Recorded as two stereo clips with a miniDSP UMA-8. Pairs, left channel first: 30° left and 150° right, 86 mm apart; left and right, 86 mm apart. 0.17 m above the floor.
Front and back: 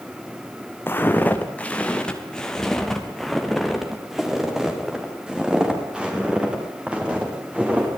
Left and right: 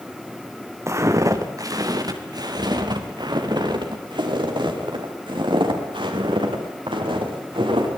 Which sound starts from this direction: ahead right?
Footsteps, at 0.9 s.